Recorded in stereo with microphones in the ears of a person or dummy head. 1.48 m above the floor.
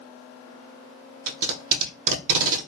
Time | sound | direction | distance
1.3 | tape being pulled | 55° right (ahead or behind) | 0.8 m